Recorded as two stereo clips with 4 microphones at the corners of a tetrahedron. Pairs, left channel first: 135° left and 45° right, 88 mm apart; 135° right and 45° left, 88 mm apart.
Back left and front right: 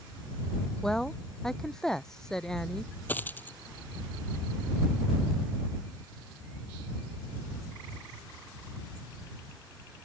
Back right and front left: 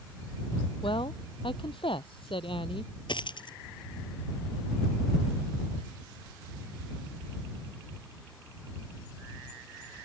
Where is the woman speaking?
140° right.